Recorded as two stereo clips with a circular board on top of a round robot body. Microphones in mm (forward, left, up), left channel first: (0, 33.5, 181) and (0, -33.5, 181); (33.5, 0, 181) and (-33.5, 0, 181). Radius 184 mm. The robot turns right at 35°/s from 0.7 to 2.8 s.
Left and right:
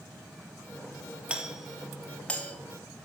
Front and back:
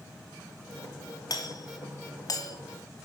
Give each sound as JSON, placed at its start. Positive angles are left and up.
{"t": 1.3, "sound": "a doorbell", "azimuth_deg": -20, "distance_m": 2.0}